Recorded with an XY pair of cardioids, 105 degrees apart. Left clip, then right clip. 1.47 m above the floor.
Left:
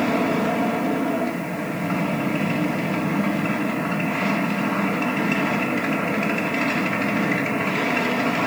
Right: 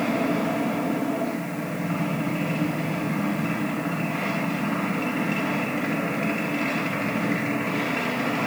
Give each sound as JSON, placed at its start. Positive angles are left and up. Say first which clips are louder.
{"t": 0.0, "sound": "a machine running", "louder": "left 3 dB", "azimuth_deg": 45, "distance_m": 2.5}